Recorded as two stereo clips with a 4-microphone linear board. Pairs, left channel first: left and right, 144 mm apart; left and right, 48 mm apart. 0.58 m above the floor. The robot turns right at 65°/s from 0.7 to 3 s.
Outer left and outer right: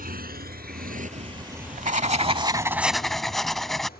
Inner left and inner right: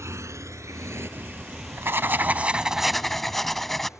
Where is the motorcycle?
75° right (ahead or behind); by 4.0 s 85° left.